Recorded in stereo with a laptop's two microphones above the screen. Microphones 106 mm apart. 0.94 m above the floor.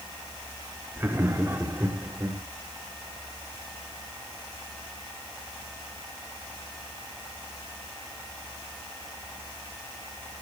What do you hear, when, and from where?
1.0 s laughter: 20° right (ahead or behind), 2.5 m; by 2.4 s 25° right (ahead or behind), 4 m